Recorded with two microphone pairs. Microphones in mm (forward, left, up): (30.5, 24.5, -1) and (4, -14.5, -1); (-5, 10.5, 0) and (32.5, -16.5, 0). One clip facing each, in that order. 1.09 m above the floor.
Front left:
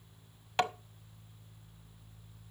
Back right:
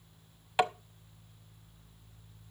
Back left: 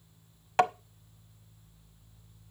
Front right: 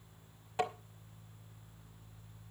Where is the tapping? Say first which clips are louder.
Back right 3 dB, back left 10 dB; 155° left, 0.9 m.